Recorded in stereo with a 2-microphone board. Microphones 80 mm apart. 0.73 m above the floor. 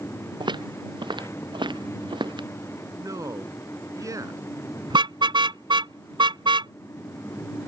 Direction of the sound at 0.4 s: 75° right (ahead or behind).